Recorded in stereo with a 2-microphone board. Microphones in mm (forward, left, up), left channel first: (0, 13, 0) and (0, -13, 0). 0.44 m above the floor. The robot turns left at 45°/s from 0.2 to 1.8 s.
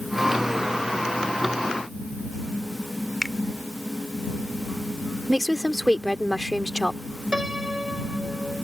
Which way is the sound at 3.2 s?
25° left (ahead or behind).